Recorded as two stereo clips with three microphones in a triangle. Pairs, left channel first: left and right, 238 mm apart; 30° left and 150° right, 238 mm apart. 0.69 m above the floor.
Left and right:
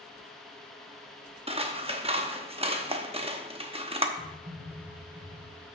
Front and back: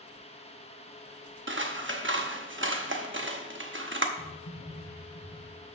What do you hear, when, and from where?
1.5 s scissors: 150° right, 0.8 m
4.2 s typing on a keyboard: 15° right, 4 m